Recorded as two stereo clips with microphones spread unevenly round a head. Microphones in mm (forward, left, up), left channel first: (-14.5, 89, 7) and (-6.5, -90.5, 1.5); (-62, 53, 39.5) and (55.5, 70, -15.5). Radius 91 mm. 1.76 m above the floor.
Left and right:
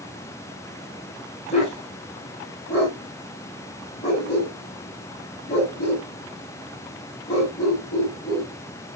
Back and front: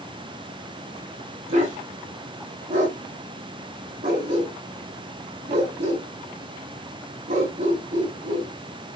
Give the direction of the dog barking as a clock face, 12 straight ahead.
11 o'clock.